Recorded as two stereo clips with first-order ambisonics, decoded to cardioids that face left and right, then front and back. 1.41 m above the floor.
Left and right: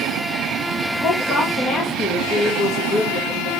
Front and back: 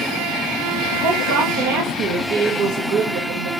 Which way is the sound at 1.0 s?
145° left.